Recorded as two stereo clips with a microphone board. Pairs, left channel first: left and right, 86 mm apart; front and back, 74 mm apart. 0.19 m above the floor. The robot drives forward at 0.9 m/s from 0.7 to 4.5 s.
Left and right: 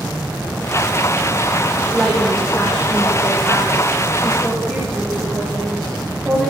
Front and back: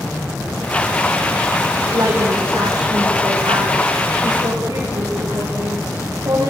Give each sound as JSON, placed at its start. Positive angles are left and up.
{"t": 1.9, "sound": "a woman speaking", "azimuth_deg": 170, "distance_m": 7.5}